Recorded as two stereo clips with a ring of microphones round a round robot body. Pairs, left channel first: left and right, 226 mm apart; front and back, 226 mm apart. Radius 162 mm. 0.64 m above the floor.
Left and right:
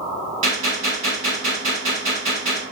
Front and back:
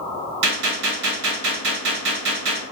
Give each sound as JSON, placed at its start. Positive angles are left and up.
{"t": 0.4, "sound": "a gunshot", "azimuth_deg": -160, "distance_m": 1.0}